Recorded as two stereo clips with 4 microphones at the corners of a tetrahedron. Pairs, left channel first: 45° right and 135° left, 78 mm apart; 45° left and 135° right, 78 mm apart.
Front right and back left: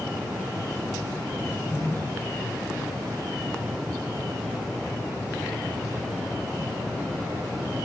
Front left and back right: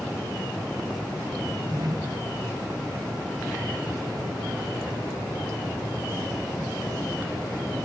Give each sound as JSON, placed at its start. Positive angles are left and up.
{"t": 1.4, "sound": "a drawer", "azimuth_deg": -100, "distance_m": 5.5}